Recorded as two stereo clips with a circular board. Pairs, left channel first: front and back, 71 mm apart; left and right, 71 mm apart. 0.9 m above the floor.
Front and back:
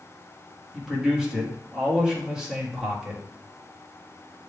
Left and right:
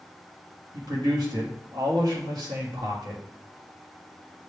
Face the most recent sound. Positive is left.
turn(degrees=-100)